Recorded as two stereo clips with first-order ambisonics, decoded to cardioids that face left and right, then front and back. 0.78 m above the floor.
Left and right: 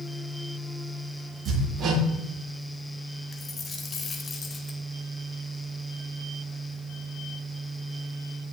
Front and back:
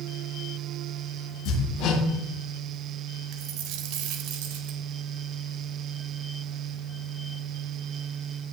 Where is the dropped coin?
160° left, 1.1 m.